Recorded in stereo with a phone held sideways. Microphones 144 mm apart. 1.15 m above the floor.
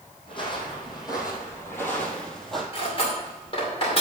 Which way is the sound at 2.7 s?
40° left (ahead or behind).